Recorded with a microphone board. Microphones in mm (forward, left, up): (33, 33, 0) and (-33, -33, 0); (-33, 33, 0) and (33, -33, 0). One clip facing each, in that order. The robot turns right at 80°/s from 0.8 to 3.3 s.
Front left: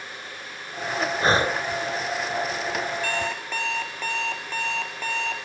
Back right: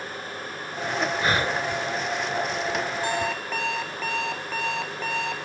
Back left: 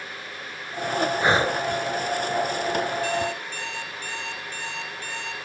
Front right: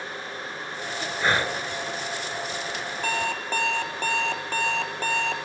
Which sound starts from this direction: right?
An alarm clock, at 3.0 s.